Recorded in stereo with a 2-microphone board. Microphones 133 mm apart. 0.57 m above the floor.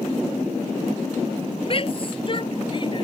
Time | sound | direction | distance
1.7 | a shout | 45° left (ahead or behind) | ?